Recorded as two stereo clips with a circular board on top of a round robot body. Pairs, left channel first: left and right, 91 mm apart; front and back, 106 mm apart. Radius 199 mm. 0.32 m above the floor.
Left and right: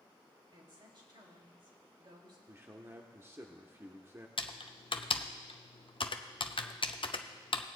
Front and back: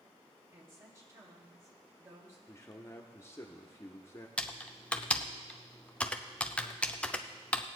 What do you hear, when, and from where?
0.5 s a woman speaking: 120° right, 3 m
2.5 s a man speaking: 45° right, 1.2 m
4.4 s typing on a keyboard: 80° left, 0.7 m